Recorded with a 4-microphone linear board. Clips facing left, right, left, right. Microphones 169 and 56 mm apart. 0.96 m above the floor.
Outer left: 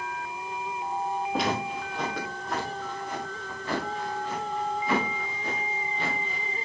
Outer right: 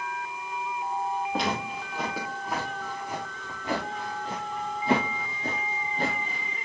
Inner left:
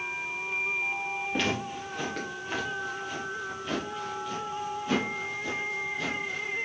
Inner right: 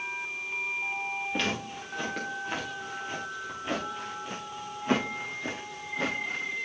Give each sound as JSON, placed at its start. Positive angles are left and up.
{"t": 1.3, "sound": "footsteps", "side_deg": 5, "distance_m": 5.5}